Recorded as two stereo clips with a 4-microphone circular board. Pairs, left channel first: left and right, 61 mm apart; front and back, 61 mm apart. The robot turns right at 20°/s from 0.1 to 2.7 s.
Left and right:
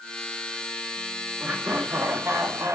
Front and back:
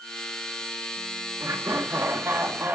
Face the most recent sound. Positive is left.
turn(degrees=-125)